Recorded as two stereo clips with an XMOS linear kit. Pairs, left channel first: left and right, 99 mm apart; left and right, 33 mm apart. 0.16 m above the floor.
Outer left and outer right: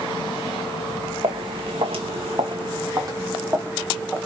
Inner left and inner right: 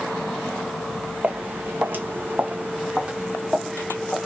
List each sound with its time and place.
1.2 s footsteps: 60° right (ahead or behind), 0.8 m; by 4.3 s 5° right (ahead or behind), 1.2 m